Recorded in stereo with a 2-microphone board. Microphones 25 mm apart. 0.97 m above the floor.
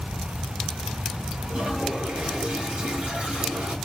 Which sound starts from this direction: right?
A toilet flushing, at 1.5 s.